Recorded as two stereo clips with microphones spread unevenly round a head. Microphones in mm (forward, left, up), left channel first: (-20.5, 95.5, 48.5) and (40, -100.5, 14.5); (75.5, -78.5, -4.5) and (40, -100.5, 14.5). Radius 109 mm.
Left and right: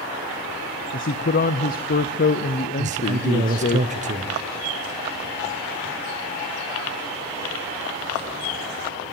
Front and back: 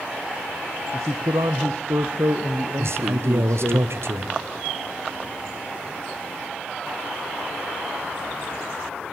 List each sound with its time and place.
0.9 s a man speaking: 160° left, 0.7 m
2.8 s a man speaking: 130° right, 0.9 m